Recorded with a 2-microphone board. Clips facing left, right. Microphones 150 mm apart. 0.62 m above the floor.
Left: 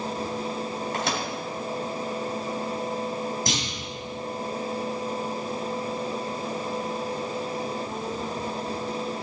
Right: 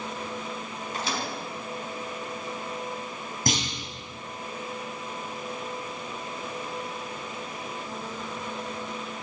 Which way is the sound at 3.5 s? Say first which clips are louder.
Right 1 dB; 55° right (ahead or behind).